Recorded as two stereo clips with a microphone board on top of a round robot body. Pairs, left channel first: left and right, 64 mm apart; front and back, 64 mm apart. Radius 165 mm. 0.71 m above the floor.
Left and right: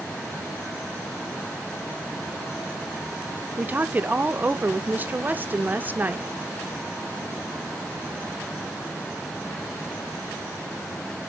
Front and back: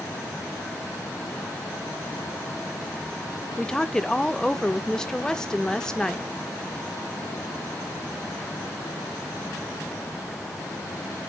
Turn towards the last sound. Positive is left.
turn(degrees=-70)